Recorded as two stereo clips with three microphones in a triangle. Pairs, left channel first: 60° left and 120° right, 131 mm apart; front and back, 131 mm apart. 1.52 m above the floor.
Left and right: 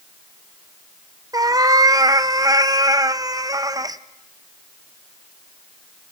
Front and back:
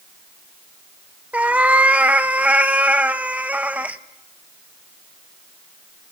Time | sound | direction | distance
1.3 | a cat meowing | 115° right | 0.7 m